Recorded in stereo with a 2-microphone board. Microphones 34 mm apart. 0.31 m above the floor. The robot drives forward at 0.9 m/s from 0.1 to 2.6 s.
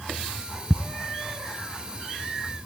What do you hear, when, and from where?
0.7 s ticking: 5° left (ahead or behind), 0.7 m